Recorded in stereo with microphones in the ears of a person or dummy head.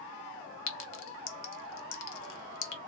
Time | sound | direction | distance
0.7 | a clink | 70° left (ahead or behind) | 0.8 m